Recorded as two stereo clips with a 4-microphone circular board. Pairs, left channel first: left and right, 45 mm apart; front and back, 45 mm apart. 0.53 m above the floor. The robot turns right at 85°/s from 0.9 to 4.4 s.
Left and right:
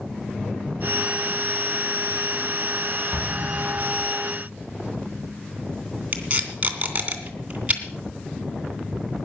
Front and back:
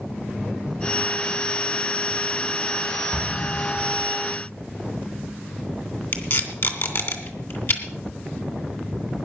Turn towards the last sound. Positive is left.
turn(degrees=-30)